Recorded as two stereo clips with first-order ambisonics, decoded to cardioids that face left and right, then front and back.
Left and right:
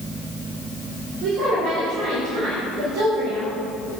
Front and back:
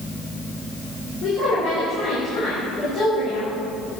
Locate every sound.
1.2 s a woman speaking: 50° right, 3.5 m